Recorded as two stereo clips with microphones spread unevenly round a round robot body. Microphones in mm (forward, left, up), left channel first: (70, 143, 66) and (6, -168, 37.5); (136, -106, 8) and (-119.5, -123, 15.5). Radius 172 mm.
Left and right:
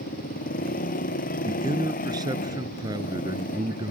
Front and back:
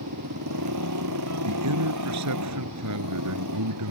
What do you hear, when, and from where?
0.0 s a motorcycle: 145° left
1.4 s a man speaking: straight behind